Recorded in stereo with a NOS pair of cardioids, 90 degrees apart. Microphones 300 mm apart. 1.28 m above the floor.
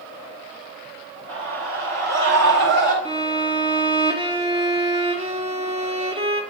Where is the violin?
20° right, 1.0 m.